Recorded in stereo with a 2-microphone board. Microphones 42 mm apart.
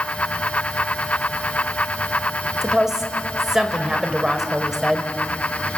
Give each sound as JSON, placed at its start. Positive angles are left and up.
{"t": 2.6, "sound": "a woman speaking", "side_deg": -10, "distance_m": 1.7}